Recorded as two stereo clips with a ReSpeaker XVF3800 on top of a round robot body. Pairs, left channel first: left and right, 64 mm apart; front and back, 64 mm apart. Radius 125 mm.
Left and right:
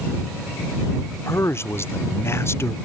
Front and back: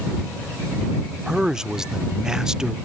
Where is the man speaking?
105° left.